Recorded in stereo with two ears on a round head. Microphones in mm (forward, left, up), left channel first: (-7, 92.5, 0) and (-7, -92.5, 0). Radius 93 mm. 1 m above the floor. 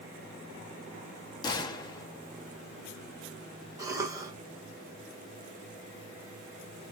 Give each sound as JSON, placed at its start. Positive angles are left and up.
{"t": 1.4, "sound": "a gunshot", "side_deg": 20, "distance_m": 0.6}
{"t": 3.8, "sound": "a cough", "side_deg": -15, "distance_m": 1.2}